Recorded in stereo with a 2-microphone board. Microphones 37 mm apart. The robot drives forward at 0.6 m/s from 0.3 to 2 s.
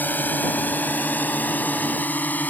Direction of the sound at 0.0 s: 55° left (ahead or behind).